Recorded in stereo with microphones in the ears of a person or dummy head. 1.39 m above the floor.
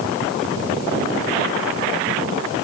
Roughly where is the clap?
No clap in this recording.